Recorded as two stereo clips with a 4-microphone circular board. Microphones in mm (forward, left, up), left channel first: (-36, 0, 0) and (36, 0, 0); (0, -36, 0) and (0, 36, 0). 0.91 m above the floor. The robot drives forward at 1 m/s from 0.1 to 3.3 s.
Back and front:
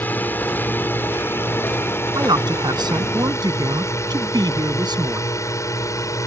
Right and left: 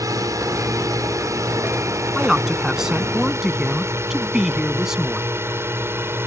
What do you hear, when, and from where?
0.0 s a drone: 120° left; by 6.3 s 145° left
2.1 s a man speaking: 5° left; by 5.3 s 10° left